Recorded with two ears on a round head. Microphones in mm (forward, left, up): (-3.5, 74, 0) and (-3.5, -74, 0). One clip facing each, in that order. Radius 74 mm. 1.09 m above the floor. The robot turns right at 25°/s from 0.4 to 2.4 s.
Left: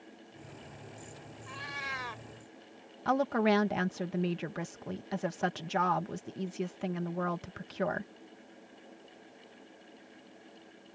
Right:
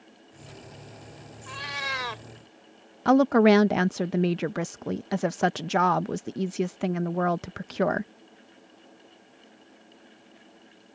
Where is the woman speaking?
60° right (ahead or behind).